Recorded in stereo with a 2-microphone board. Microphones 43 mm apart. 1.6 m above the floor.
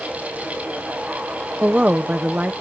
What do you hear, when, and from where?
1.6 s a woman speaking: 35° right (ahead or behind)